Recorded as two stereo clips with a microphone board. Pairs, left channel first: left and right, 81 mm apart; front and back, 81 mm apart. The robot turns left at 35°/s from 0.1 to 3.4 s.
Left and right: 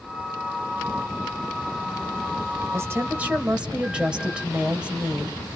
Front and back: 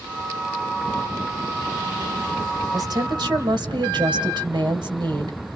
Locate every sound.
2.7 s a woman speaking: 145° right, 2.5 m; by 5.6 s 165° right, 2.5 m